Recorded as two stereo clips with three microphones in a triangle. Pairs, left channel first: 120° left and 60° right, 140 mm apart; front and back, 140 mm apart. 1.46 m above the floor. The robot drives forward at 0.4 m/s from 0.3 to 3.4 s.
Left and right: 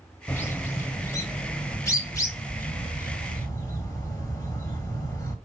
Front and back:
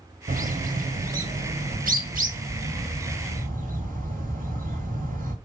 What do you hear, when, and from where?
0.3 s a bird: 170° right, 0.8 m; by 5.3 s 175° right, 2.0 m